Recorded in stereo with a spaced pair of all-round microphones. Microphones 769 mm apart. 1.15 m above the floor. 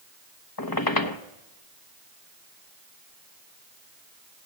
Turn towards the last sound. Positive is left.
turn(degrees=30)  # may be behind; listen again after turning